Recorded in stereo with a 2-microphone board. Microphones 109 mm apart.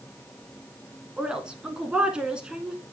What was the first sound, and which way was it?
A woman speaking, 10° right (ahead or behind).